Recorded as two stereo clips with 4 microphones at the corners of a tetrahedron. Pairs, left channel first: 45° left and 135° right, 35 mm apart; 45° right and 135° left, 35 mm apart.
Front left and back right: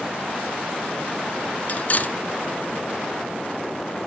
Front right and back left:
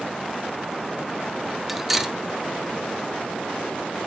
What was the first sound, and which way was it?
Cutlery clinking, 50° left.